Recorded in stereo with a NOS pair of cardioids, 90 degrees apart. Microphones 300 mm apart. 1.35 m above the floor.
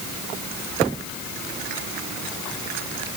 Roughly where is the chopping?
I don't hear chopping.